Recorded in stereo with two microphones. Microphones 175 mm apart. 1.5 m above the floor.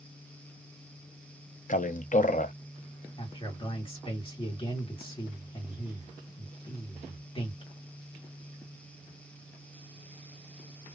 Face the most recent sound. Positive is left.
turn(degrees=30)  # may be behind; listen again after turning